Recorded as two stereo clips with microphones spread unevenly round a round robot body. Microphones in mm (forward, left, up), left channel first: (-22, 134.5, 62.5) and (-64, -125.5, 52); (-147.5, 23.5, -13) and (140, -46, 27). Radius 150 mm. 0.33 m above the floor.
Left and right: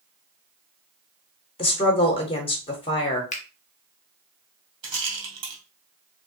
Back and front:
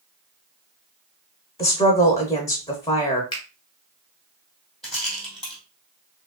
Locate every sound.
1.6 s a woman speaking: 125° left, 0.9 m
3.3 s a finger snap: 120° left, 1.0 m
4.8 s a rattle: 105° right, 1.9 m